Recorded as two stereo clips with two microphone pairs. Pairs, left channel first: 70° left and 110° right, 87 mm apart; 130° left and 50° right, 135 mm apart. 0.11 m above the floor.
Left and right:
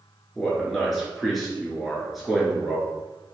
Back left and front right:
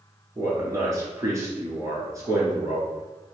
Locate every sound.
0.3 s a man speaking: 20° right, 1.5 m